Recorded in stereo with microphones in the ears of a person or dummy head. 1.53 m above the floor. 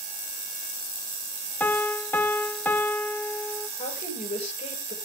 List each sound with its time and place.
1.6 s a piano: 5° left (ahead or behind), 0.6 m
3.8 s a woman speaking: 35° left (ahead or behind), 6 m